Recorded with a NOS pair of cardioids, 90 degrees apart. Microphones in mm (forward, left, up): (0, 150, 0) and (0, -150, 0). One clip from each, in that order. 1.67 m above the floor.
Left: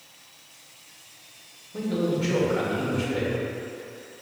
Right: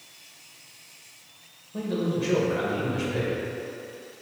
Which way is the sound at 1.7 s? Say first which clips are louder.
Left 2 dB; 5° left.